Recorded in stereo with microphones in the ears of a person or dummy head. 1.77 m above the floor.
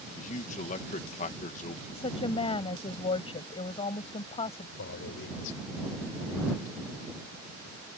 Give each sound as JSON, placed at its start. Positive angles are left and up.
{"t": 0.2, "sound": "a man speaking", "side_deg": 40}
{"t": 1.9, "sound": "a woman speaking", "side_deg": 30}
{"t": 4.8, "sound": "a man speaking", "side_deg": 70}